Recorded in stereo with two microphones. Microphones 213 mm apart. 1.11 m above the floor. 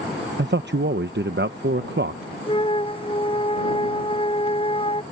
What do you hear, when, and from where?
0.4 s a man speaking: 55° right (ahead or behind)
2.5 s a flute: 25° left (ahead or behind)